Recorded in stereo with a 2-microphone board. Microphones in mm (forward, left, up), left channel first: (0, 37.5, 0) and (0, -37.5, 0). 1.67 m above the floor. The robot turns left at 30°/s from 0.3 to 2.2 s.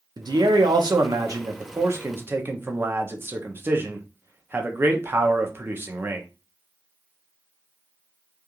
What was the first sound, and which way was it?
A man speaking, 90° right.